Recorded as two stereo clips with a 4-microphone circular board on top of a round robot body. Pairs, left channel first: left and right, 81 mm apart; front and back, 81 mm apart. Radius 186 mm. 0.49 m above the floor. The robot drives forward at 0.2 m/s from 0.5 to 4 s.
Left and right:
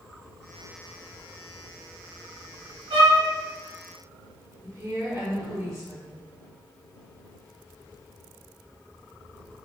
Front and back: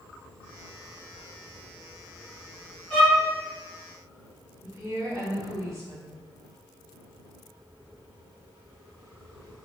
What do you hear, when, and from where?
2.9 s a violin: 80° right, 0.9 m; by 3.2 s 85° right, 0.9 m
4.6 s a woman speaking: 135° right, 1.6 m